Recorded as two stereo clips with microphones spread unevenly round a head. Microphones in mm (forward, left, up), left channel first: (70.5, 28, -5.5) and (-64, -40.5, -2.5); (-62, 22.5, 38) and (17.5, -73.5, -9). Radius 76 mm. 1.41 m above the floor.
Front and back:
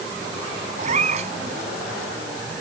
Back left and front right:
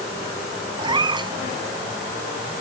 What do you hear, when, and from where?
0.8 s a cat meowing: 110° right